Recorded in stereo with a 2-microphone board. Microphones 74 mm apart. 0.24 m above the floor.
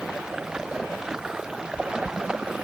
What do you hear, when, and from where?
0.0 s running water: 10° right (ahead or behind)